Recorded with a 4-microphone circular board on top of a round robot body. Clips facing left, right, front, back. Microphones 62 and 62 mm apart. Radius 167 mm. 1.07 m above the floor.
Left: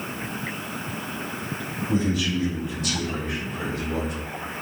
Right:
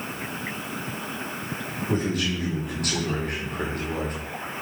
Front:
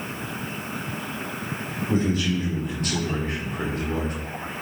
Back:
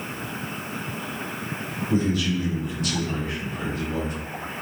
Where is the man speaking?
55° right, 5 m; by 4.2 s 45° right, 4 m.